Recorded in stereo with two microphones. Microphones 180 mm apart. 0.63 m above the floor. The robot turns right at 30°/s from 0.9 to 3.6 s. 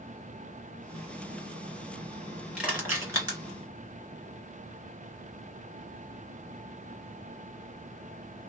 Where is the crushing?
5° right (ahead or behind), 1.8 m; by 3.4 s 25° right (ahead or behind), 1.8 m.